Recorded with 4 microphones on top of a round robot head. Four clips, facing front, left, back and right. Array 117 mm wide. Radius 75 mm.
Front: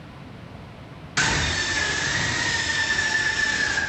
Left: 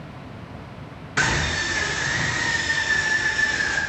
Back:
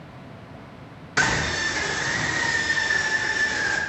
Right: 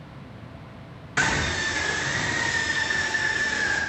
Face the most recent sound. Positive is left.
turn(degrees=-175)